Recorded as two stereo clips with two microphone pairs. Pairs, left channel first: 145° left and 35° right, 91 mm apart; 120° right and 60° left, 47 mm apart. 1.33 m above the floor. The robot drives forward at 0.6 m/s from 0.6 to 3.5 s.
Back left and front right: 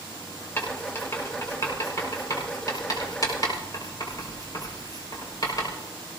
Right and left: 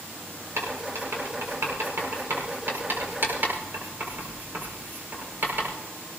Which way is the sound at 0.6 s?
80° left.